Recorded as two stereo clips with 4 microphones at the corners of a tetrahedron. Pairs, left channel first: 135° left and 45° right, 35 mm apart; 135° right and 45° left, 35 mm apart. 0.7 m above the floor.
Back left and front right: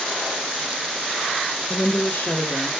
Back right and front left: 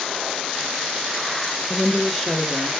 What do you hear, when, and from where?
1.7 s a woman speaking: 160° left, 0.8 m; by 2.7 s 135° left, 1.4 m